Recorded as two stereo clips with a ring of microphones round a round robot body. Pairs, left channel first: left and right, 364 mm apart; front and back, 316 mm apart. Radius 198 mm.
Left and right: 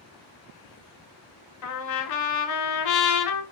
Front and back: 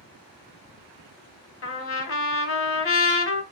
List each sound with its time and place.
1.6 s a trumpet: 50° left, 0.8 m